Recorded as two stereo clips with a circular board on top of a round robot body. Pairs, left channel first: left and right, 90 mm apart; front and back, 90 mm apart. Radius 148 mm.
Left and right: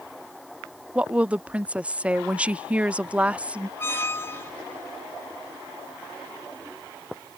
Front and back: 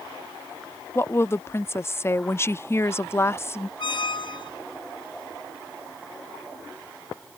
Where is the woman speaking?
25° right.